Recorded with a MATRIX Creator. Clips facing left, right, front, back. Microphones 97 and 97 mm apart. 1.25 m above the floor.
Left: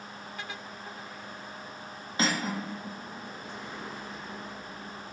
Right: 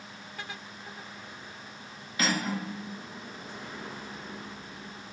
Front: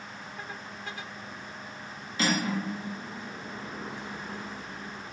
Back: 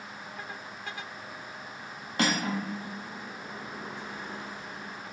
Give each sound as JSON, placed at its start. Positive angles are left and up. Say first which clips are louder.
{"t": 2.2, "sound": "cutlery clinking", "louder": "even, even", "azimuth_deg": 150, "distance_m": 1.2}